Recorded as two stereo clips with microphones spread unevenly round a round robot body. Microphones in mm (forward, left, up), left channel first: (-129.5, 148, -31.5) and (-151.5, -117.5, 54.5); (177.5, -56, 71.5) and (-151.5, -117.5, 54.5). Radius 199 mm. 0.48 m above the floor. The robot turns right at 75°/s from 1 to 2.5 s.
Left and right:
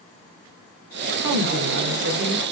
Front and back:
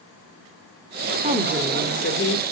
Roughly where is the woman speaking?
Right.